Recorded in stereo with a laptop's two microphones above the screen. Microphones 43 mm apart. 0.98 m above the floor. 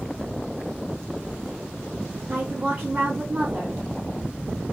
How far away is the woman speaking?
About 1.8 m.